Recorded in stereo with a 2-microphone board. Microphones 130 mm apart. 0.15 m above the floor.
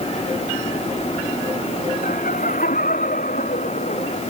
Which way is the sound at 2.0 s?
80° left.